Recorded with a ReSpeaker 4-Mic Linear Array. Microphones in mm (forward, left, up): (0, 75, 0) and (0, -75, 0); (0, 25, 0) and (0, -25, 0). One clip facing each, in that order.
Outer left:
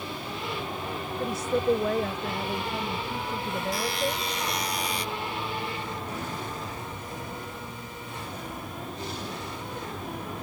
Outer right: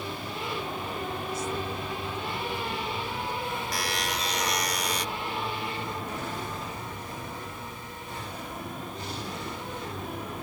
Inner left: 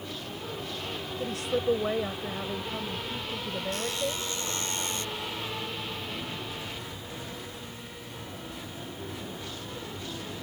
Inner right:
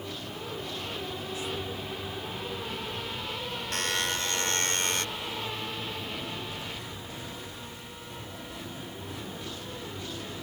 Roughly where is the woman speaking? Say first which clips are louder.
Outer left 6 dB, inner left 6 dB; left.